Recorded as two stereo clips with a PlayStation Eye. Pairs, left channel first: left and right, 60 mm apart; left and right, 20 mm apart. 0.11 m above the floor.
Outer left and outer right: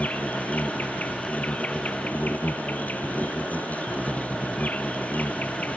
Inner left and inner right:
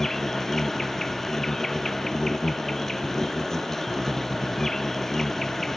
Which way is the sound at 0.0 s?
25° left (ahead or behind).